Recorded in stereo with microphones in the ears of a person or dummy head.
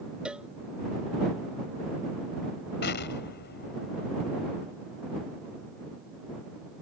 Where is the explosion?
50° left (ahead or behind).